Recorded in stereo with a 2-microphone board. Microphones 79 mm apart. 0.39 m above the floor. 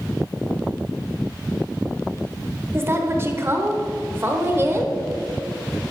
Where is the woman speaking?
30° right (ahead or behind), 1.3 m.